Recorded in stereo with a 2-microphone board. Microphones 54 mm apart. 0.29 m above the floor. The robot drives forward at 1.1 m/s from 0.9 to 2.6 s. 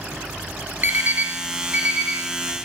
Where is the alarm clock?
40° right (ahead or behind), 0.8 m; by 2.6 s 15° right (ahead or behind), 2 m.